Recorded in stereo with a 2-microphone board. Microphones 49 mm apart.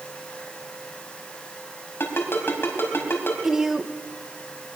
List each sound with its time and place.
2.0 s a ringtone: 55° left (ahead or behind), 4 m
3.4 s a woman speaking: 10° right (ahead or behind), 1.3 m